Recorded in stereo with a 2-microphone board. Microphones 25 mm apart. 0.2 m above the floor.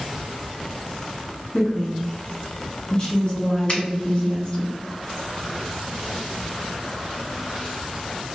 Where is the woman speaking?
35° left (ahead or behind), 1.2 m.